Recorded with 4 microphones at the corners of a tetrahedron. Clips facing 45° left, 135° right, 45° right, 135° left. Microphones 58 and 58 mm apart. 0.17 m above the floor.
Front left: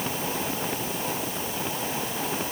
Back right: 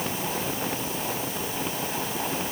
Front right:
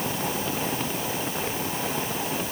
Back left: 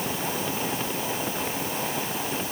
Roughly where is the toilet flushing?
I don't hear a toilet flushing.